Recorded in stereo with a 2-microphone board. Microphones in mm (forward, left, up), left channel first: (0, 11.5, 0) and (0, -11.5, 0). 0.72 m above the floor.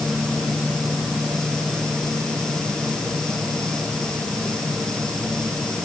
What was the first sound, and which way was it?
Only background noise.